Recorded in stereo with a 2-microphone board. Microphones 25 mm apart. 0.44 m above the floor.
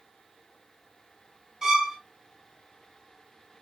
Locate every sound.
1.6 s a violin: 25° right (ahead or behind), 2.5 m